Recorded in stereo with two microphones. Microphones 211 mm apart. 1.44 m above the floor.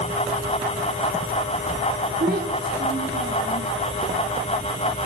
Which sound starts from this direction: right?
A child speaking, at 2.2 s.